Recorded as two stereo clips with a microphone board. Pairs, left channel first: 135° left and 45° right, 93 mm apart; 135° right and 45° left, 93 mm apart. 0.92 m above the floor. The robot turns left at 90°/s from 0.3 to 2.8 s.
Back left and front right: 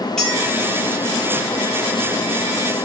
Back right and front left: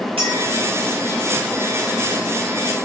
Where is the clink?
50° left, 5 m; by 0.5 s 30° left, 5 m.